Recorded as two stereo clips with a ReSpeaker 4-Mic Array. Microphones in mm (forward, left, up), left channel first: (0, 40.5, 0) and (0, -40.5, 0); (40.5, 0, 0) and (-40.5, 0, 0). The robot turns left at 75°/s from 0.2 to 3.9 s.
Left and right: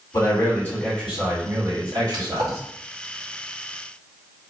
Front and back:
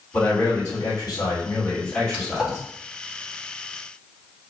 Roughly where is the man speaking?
Left.